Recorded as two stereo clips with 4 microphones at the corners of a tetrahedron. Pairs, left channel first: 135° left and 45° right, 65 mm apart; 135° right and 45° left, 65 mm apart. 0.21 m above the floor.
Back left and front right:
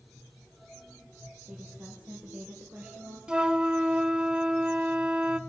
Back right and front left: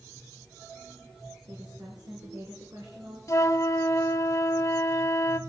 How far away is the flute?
About 0.6 m.